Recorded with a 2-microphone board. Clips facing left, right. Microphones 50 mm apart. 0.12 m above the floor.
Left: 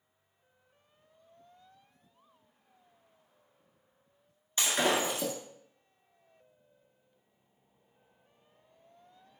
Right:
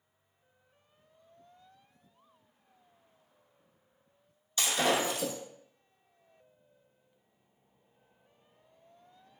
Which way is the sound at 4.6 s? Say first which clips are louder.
Even; 30° left (ahead or behind).